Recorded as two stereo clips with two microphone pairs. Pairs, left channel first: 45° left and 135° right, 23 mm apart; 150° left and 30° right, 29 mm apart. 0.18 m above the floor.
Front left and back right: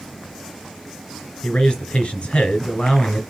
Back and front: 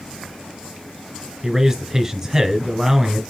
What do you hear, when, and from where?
1.4 s a man speaking: 40° left, 3 m